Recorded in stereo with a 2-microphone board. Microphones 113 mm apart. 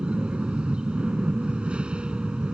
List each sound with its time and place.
0.0 s an aircraft: 10° right (ahead or behind)